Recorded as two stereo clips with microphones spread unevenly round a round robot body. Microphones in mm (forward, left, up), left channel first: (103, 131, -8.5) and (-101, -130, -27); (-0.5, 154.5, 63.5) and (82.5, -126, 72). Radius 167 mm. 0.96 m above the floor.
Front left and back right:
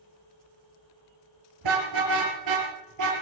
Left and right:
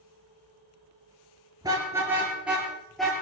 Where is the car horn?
150° right, 6.5 m; by 3.1 s 165° right, 7.5 m.